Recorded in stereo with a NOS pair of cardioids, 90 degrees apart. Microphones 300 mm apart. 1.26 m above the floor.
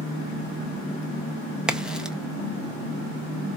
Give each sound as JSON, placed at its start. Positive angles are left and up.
{"t": 1.7, "sound": "a crack", "azimuth_deg": 0, "distance_m": 0.6}